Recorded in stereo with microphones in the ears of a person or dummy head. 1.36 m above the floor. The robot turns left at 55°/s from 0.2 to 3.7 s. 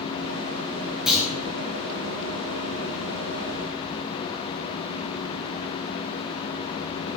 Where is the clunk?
Centre (ahead or behind), 5.5 m; by 1.3 s 10° right (ahead or behind), 5.5 m.